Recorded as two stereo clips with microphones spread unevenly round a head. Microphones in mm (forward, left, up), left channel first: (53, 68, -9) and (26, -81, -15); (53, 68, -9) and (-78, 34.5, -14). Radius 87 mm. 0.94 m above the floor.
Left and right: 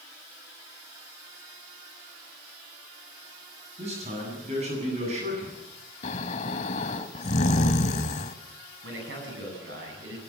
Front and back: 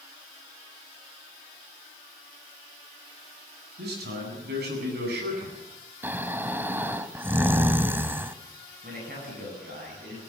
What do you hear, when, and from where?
3.8 s a man speaking: 155° right, 8.5 m
6.0 s snoring: 120° left, 1.3 m
8.8 s a man speaking: 120° right, 8.5 m